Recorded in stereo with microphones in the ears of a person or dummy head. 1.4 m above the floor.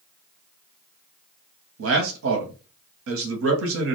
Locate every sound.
1.8 s a man speaking: 65° right (ahead or behind), 0.7 m